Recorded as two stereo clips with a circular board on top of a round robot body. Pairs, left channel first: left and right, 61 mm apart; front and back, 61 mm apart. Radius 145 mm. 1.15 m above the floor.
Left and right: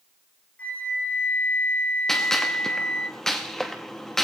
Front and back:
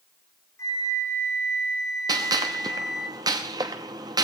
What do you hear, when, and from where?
0.6 s a flute: 30° left, 3 m
2.1 s a gunshot: 175° left, 0.7 m